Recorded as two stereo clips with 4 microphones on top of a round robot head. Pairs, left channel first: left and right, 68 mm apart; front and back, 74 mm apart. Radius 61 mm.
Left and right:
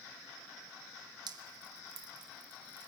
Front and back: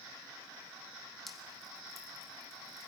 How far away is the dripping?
About 1.9 m.